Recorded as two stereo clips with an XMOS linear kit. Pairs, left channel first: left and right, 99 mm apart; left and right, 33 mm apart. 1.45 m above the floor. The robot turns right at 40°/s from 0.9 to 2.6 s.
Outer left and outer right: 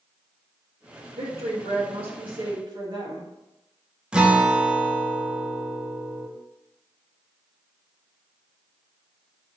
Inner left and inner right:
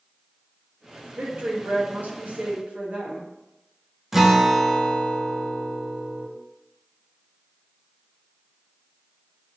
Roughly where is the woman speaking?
Right.